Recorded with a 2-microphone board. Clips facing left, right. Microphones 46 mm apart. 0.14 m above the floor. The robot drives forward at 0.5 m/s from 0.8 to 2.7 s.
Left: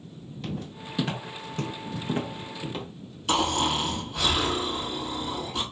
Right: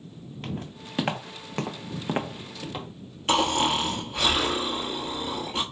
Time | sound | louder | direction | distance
0.4 | footsteps | left 1 dB | 45° right (ahead or behind) | 1.4 m
3.3 | snoring | right 2 dB | 40° right (ahead or behind) | 1.2 m